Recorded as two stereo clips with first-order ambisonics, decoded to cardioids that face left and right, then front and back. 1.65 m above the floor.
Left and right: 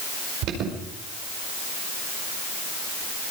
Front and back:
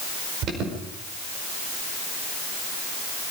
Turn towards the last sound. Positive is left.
turn(degrees=-130)